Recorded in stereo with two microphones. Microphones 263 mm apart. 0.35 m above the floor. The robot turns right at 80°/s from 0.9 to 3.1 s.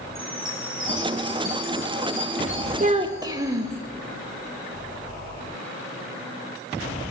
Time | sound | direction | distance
0.1 | a chime | 80° right | 5 m
2.8 | a child speaking | 30° right (ahead or behind) | 0.5 m